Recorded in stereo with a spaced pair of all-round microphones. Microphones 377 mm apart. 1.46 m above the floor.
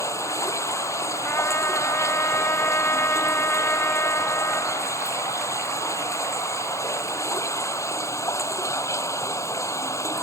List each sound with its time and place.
0.0 s running water: 10° left (ahead or behind)
1.2 s a trumpet: 5° left (ahead or behind)